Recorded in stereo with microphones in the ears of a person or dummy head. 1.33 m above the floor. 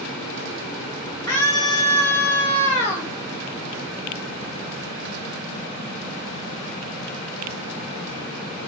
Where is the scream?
15° left (ahead or behind), 4.5 m.